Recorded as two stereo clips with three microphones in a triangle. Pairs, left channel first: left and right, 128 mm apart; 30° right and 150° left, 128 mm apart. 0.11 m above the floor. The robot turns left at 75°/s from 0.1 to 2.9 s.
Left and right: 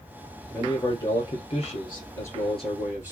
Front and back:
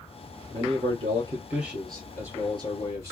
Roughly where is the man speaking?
Behind.